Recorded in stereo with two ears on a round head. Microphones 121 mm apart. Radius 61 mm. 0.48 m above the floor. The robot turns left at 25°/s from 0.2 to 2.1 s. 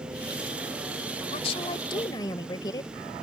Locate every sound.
1.3 s a woman speaking: 45° left (ahead or behind); by 2.9 s 30° left (ahead or behind)